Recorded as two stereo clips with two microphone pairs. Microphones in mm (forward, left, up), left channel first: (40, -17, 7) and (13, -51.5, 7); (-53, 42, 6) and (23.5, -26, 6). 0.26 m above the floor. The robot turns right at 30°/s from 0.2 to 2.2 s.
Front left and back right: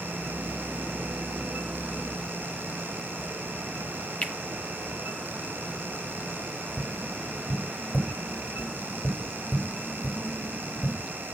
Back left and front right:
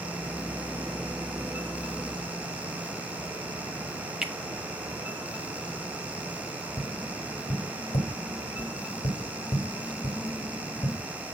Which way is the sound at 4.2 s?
35° left.